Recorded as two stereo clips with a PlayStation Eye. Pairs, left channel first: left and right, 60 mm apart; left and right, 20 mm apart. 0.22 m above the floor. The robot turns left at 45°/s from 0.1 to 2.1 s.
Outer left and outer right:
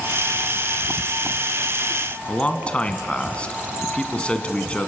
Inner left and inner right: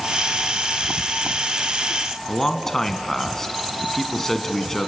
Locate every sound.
2.3 s a man speaking: 20° left (ahead or behind), 1.9 m